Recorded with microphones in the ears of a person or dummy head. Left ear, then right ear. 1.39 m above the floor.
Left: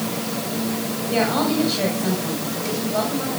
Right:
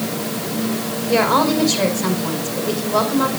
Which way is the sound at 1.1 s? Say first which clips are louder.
Right 5 dB; 60° right (ahead or behind).